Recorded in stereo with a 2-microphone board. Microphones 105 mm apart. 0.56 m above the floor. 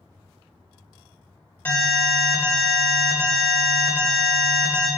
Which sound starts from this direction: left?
An alarm, at 1.6 s.